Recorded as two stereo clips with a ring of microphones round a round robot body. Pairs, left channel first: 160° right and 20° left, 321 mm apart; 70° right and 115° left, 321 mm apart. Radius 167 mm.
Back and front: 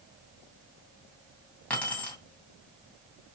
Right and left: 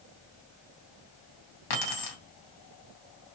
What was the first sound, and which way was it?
Keys jangling, 70° right.